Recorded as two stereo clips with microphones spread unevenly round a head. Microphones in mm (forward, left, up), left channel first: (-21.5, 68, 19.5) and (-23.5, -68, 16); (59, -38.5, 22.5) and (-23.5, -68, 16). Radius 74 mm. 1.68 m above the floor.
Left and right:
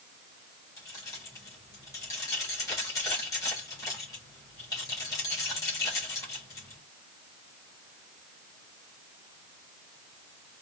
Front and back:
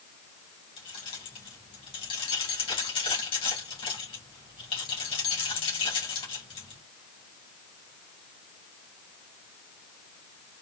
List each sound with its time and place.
0.8 s keys jangling: 20° left, 2.5 m